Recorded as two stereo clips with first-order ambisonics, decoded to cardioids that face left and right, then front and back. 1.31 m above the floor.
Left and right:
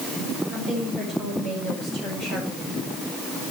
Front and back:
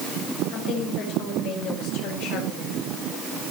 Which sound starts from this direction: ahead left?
A woman speaking, at 0.5 s.